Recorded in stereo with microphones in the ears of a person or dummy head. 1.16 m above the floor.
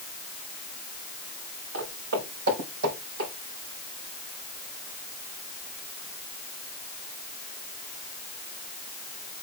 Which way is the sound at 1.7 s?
75° right (ahead or behind).